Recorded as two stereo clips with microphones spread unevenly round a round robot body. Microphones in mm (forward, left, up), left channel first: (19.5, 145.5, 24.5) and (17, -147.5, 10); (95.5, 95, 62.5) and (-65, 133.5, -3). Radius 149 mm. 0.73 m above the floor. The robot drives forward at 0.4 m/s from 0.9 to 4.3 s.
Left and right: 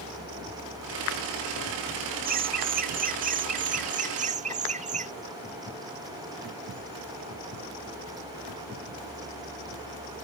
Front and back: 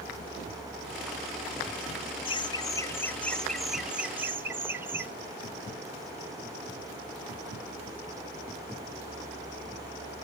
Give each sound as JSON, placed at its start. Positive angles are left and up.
{"t": 2.2, "sound": "laughter", "azimuth_deg": -90}